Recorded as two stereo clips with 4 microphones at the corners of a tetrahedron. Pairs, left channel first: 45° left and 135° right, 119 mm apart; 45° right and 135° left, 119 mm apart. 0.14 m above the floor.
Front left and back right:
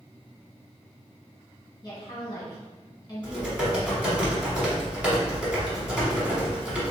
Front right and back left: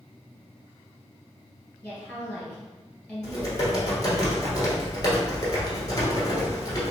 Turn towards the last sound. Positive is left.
turn(degrees=-60)